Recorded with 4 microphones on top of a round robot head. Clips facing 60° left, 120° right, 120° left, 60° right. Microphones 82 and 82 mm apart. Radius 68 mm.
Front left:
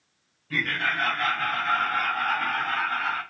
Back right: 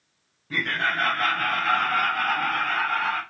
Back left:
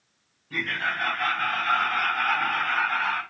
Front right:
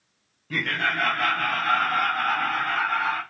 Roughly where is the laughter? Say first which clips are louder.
Back right 2 dB, front right 3 dB; ahead right.